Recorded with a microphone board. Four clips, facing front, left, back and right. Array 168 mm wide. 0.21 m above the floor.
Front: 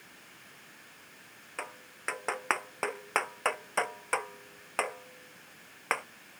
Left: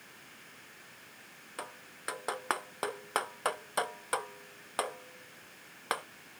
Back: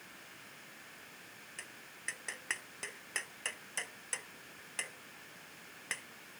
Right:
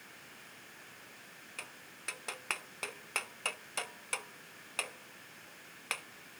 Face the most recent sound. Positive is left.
turn(degrees=35)